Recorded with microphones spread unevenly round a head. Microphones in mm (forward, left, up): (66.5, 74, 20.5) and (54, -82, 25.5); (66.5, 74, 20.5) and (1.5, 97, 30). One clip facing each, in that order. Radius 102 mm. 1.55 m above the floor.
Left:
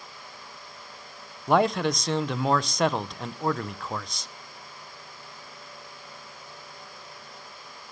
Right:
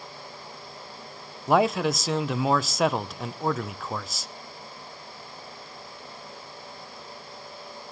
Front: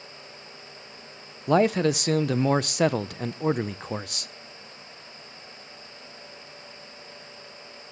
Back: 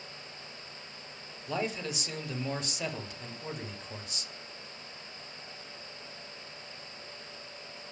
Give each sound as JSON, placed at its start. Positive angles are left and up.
{"t": 1.5, "sound": "a man speaking", "azimuth_deg": -10, "distance_m": 0.6}